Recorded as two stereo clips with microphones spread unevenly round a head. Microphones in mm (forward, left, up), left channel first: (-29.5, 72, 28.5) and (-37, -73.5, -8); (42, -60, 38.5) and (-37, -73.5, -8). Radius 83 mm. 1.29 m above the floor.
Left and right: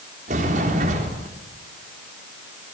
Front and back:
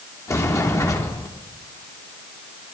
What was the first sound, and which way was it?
A sliding door, 45° right.